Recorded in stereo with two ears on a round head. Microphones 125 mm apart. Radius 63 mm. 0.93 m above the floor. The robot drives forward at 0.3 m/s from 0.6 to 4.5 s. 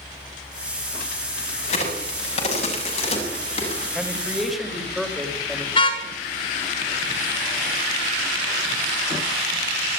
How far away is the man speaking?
About 5 m.